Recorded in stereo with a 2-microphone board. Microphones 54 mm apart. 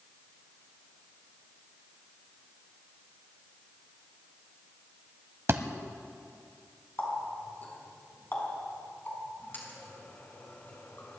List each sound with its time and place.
5.5 s a thud: 50° right (ahead or behind), 0.9 m
7.0 s a running tap: 35° left (ahead or behind), 4 m